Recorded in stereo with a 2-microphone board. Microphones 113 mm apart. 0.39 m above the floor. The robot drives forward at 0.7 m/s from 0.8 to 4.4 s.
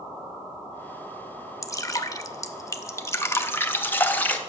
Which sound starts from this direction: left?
Dripping, at 1.6 s.